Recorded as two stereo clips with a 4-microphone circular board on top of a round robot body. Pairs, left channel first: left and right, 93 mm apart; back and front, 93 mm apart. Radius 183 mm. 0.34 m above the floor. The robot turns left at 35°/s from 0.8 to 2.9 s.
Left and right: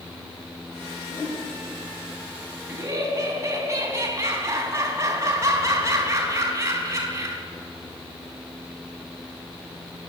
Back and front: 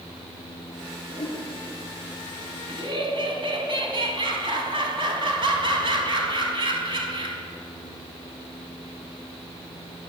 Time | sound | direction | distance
1.1 | a whoosh | 140° left | 7 m
2.7 | laughter | 25° right | 4.5 m